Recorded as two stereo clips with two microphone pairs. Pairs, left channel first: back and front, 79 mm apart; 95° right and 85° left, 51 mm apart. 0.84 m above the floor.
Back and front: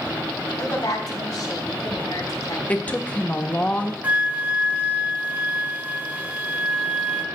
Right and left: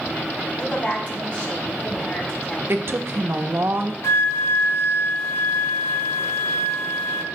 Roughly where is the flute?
Right.